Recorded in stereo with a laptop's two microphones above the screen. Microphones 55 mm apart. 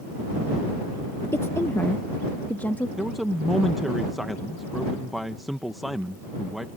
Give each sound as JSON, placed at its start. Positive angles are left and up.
{"t": 1.3, "sound": "a woman speaking", "side_deg": 55}
{"t": 3.0, "sound": "a man speaking", "side_deg": 0}